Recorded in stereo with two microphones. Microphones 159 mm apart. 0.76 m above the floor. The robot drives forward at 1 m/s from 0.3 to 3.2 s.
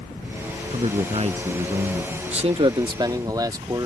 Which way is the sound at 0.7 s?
40° right (ahead or behind).